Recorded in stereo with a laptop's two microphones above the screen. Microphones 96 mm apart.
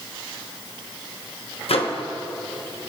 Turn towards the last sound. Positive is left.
turn(degrees=80)